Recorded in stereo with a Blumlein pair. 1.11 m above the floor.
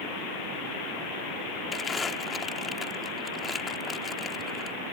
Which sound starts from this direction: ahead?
Crumpling, at 1.7 s.